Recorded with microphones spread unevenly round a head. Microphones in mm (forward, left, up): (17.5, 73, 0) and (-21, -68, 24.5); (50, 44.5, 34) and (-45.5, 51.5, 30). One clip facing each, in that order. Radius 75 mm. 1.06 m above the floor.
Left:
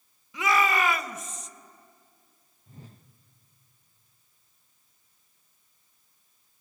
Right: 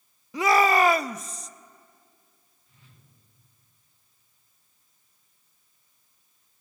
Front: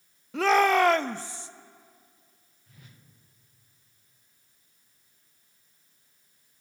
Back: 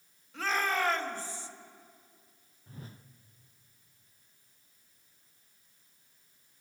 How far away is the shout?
About 0.6 m.